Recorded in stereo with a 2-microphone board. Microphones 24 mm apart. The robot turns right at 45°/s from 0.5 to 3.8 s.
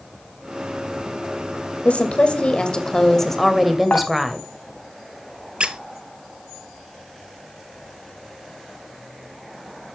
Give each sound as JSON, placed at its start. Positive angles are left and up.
{"t": 1.9, "sound": "a woman speaking", "azimuth_deg": 95, "distance_m": 2.5}
{"t": 3.9, "sound": "dishes clattering", "side_deg": 80, "distance_m": 2.5}
{"t": 5.6, "sound": "a squeak", "side_deg": -50, "distance_m": 0.8}